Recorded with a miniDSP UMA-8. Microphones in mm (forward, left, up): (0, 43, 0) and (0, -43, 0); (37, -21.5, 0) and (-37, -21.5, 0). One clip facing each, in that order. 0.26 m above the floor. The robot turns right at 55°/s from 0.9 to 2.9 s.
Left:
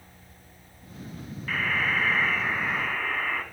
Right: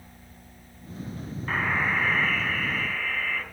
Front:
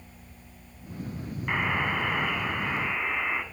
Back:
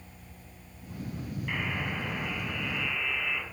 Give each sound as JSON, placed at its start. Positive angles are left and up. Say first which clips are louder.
{"t": 1.5, "sound": "a buzzer", "louder": "right 1 dB, front 7 dB", "azimuth_deg": -35, "distance_m": 2.0}